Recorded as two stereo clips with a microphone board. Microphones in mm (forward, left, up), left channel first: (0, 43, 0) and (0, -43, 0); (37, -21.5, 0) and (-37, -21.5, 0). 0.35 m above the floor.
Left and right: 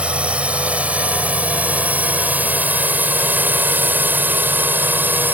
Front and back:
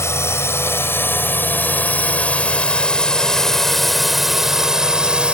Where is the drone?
20° right; by 5.3 s 120° right.